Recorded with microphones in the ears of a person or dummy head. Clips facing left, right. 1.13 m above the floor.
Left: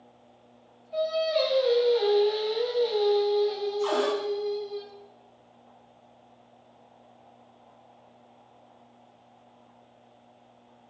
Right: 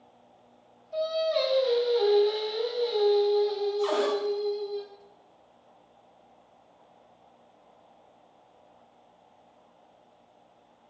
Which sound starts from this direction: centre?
Singing, at 0.9 s.